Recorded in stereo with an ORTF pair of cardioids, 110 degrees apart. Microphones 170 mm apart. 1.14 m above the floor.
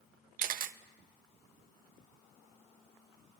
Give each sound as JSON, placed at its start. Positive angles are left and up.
{"t": 0.4, "sound": "a camera shutter", "azimuth_deg": -55, "distance_m": 0.6}